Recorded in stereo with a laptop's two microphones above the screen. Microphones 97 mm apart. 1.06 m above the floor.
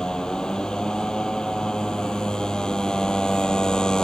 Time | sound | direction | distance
0.0 | a motorcycle | 5° left (ahead or behind) | ?